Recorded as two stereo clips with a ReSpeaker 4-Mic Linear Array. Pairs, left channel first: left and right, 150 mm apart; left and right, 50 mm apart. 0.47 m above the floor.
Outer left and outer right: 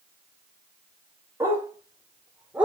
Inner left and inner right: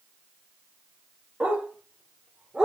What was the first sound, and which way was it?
A dog barking, 20° right (ahead or behind).